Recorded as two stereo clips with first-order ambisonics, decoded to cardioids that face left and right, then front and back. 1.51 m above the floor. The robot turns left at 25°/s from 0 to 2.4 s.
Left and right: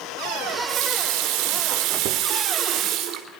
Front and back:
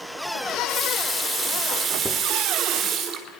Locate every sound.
0.5 s a running tap: 85° right, 4 m; by 3.3 s 130° right, 4 m